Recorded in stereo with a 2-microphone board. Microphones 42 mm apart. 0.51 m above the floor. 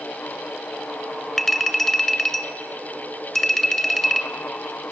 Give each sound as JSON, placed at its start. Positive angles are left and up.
{"t": 1.4, "sound": "a clink", "side_deg": 5, "distance_m": 1.1}